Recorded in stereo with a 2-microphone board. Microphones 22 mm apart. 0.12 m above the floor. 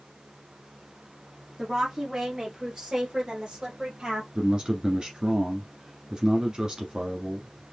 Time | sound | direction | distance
1.6 | a woman speaking | 10° right (ahead or behind) | 1.7 m
4.3 | a man speaking | 40° right (ahead or behind) | 1.5 m